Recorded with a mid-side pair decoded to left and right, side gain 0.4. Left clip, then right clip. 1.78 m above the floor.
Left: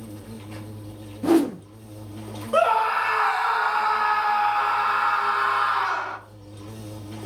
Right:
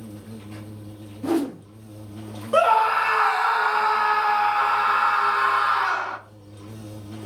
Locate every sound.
0.0 s an insect: 30° left, 2 m
1.2 s a whoosh: 35° left, 0.5 m
2.5 s a scream: 15° right, 0.9 m